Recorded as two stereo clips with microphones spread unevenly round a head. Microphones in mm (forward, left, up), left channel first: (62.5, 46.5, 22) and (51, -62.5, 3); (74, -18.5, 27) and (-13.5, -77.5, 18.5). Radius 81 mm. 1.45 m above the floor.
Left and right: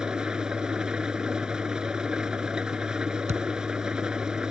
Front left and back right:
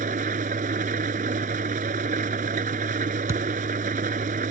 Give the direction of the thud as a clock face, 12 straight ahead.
3 o'clock.